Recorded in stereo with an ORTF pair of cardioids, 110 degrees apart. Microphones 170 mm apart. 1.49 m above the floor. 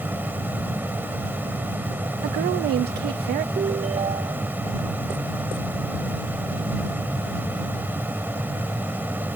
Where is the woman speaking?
70° right.